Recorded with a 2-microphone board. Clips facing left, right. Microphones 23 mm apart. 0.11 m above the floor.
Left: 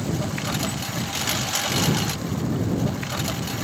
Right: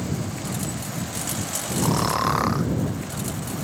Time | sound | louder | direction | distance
0.0 | a lawn mower | left 3 dB | 40° left (ahead or behind) | ?
1.8 | snoring | right 3 dB | 75° right (ahead or behind) | ?